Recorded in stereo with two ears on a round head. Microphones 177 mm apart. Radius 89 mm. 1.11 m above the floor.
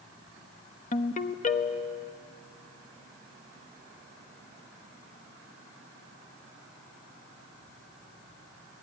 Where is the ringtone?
40° left (ahead or behind), 0.9 m.